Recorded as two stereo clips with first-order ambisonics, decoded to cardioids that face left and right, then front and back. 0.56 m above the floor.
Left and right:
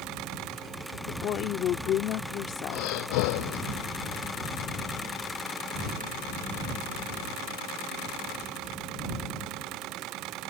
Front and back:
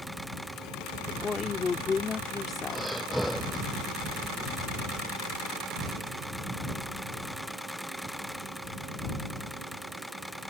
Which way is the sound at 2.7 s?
95° left.